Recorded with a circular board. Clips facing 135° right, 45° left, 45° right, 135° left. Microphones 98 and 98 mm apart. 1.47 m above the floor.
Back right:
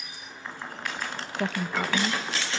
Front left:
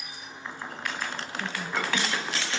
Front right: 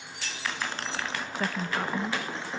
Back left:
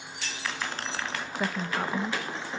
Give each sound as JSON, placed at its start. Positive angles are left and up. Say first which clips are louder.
{"t": 1.4, "sound": "a woman speaking", "louder": "back right 4 dB, back left 1 dB", "azimuth_deg": -145, "distance_m": 1.2}